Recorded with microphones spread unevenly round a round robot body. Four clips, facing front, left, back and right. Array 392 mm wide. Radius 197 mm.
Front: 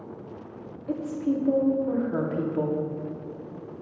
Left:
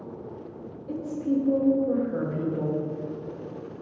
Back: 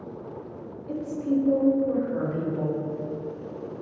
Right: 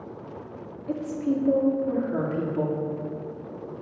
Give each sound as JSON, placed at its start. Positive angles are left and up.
{"t": 0.9, "sound": "a woman speaking", "azimuth_deg": -45, "distance_m": 2.0}